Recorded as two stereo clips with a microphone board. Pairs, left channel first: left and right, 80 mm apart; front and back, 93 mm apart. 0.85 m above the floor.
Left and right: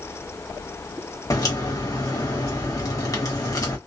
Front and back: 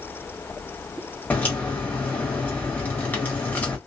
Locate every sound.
1.3 s a crack: 65° left, 1.1 m